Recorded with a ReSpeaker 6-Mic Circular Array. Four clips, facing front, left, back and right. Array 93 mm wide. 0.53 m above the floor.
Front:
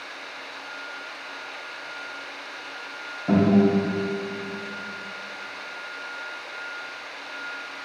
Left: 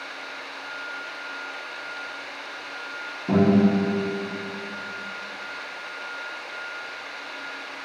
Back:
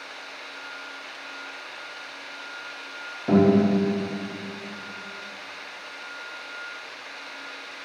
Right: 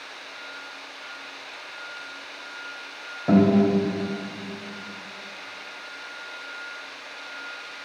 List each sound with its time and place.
3.3 s a guitar: 105° right, 1.8 m